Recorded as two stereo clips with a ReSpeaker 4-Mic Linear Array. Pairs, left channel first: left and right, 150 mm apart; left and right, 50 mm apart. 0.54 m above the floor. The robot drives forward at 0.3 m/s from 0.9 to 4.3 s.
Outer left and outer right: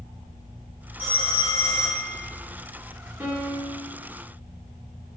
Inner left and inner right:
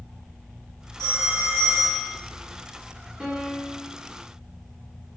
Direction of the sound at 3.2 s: 15° right (ahead or behind).